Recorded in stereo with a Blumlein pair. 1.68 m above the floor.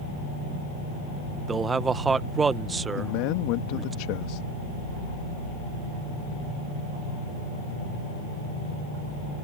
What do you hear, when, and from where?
1.5 s a man speaking: 15° right
3.0 s a man speaking: 45° left